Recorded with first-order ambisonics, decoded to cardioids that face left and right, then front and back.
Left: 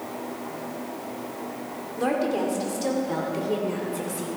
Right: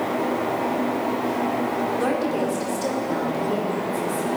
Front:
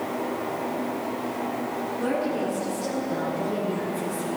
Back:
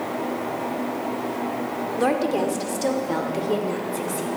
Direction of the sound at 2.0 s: 175° right.